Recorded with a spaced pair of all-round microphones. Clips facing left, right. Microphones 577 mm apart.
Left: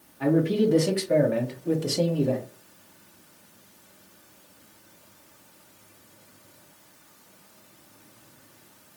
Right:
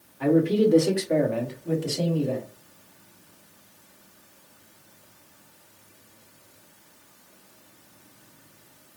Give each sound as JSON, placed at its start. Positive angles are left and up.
{"t": 0.2, "sound": "a man speaking", "side_deg": 10, "distance_m": 1.2}